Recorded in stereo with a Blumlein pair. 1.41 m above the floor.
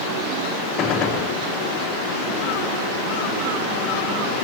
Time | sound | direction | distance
0.8 | a gunshot | 30° left | 0.9 m